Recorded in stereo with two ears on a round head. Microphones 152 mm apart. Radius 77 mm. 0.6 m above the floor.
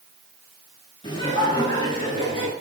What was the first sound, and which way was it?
Laughter, 25° left (ahead or behind).